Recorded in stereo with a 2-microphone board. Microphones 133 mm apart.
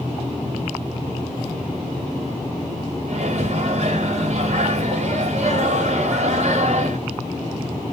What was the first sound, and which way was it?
A microwave, 55° right (ahead or behind).